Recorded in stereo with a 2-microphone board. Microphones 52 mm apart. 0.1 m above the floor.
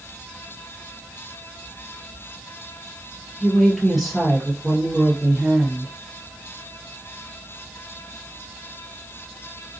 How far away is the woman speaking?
About 2 m.